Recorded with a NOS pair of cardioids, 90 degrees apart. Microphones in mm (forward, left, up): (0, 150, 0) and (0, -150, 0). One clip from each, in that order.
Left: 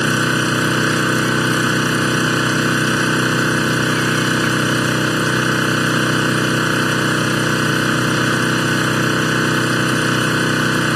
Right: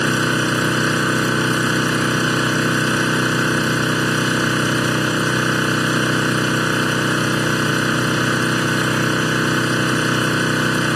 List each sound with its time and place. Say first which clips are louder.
0.0 s an engine running: left 1 dB; 5° left